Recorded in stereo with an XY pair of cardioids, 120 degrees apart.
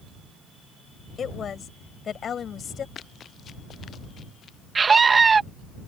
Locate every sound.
1.2 s a woman speaking: 40° left; by 2.9 s 45° left
3.0 s running footsteps: 45° left
4.8 s a scream: 30° right